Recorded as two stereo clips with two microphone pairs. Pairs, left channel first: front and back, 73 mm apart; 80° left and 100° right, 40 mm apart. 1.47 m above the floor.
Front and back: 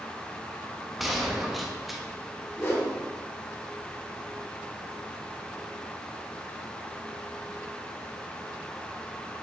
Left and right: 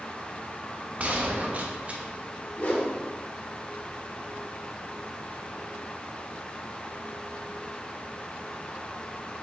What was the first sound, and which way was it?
A gunshot, 95° right.